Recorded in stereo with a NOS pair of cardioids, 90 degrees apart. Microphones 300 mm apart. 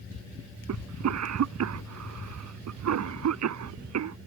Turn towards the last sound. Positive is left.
turn(degrees=-60)